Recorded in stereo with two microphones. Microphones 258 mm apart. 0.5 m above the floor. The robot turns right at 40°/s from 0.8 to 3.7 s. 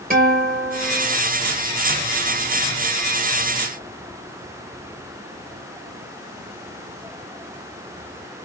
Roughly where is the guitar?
Right.